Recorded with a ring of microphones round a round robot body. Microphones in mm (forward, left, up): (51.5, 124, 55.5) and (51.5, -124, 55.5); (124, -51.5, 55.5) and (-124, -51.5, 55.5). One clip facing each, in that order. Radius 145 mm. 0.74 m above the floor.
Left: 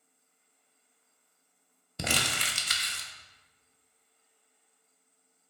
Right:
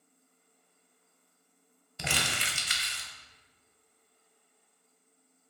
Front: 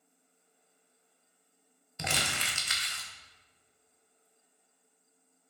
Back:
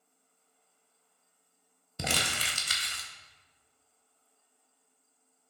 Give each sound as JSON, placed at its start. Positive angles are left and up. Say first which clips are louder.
{"t": 2.0, "sound": "crumpling", "louder": "left 3 dB, back 2 dB", "azimuth_deg": 135, "distance_m": 0.5}